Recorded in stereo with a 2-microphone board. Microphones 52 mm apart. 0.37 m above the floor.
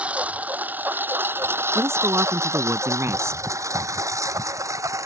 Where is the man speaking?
65° right (ahead or behind).